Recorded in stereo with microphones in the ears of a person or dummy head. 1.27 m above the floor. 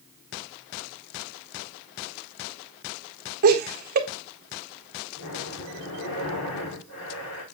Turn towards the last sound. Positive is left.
turn(degrees=85)